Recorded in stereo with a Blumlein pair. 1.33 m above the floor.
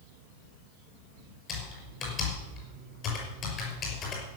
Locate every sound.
1.5 s typing on a keyboard: 30° left, 5.5 m